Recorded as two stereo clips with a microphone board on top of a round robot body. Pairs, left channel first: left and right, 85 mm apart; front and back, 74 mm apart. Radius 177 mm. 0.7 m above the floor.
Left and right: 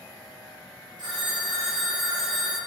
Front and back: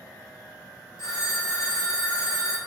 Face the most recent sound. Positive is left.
turn(degrees=-50)